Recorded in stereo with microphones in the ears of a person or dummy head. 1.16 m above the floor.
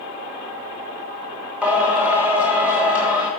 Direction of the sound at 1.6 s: Centre (ahead or behind).